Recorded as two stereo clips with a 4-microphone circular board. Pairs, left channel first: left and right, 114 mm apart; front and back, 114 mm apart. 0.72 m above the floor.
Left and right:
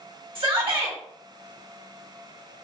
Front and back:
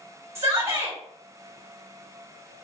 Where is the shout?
120° right, 1.1 m.